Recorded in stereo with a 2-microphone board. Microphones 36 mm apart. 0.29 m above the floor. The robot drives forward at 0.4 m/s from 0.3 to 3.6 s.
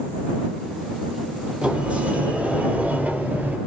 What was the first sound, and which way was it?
A sliding door, 40° right (ahead or behind).